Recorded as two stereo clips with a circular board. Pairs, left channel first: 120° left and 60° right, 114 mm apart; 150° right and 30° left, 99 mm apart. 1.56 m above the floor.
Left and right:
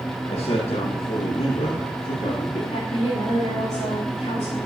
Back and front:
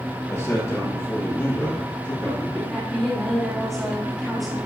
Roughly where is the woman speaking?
Behind left.